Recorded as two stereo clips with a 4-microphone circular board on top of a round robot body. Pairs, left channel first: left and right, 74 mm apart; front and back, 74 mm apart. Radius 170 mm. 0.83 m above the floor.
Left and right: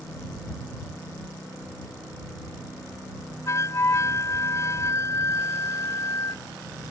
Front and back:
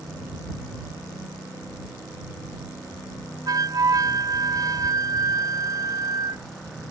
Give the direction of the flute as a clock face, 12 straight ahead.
7 o'clock.